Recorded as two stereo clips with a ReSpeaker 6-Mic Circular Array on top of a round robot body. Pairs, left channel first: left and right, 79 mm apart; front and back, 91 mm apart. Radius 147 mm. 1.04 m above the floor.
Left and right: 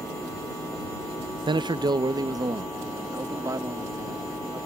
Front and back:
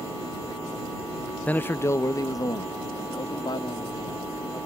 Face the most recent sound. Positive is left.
turn(degrees=-40)